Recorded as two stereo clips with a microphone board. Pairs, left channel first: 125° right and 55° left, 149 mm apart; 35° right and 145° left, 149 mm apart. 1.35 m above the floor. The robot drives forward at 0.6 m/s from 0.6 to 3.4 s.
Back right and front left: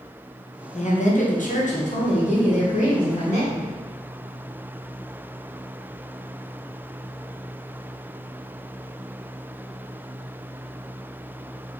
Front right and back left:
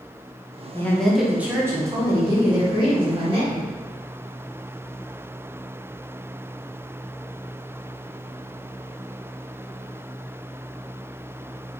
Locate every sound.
0.7 s a woman speaking: 105° right, 0.7 m; by 3.7 s 160° right, 1.9 m